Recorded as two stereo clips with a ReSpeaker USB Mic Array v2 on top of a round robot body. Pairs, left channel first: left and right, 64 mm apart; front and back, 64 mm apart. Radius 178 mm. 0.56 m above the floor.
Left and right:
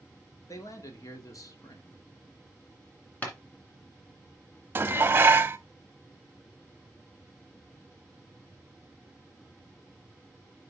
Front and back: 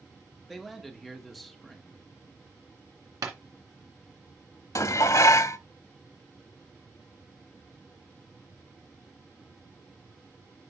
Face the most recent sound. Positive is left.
turn(degrees=-30)